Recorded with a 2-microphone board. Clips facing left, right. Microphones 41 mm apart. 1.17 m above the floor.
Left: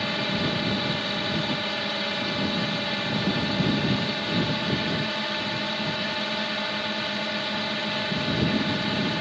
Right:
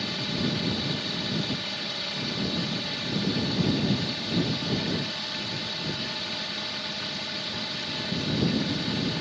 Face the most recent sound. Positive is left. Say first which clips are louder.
# left 4 dB
turn(degrees=30)  # may be behind; listen again after turning